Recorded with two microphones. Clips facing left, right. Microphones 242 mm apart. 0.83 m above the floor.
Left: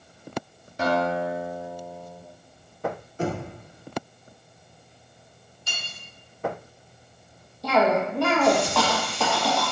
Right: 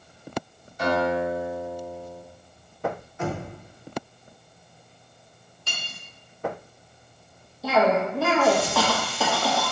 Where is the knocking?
35° left (ahead or behind), 0.8 m.